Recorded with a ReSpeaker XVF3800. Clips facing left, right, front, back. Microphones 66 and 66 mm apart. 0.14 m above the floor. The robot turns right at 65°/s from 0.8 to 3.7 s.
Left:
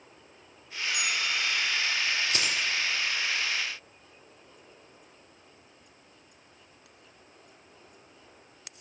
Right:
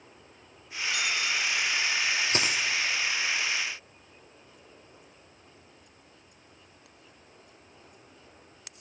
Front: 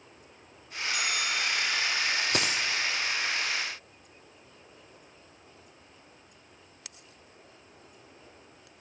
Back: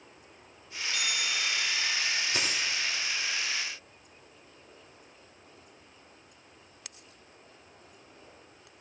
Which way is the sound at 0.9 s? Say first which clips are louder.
Right 1 dB, front 2 dB; 75° right.